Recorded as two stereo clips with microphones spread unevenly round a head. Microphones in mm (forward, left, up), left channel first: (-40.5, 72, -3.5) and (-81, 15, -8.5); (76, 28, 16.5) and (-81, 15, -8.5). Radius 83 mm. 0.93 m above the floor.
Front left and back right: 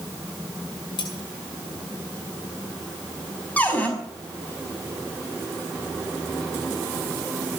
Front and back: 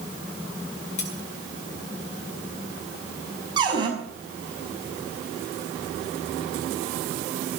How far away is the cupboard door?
About 5.5 m.